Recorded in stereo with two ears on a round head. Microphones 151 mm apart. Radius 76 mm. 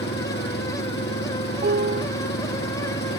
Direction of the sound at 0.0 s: 60° left (ahead or behind).